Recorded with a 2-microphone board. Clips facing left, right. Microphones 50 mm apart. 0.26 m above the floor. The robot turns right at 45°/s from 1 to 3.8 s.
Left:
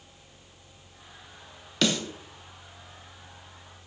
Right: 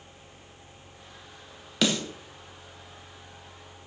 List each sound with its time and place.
1.8 s a snare drum: 5° right (ahead or behind), 0.7 m; by 2.0 s centre (ahead or behind), 0.7 m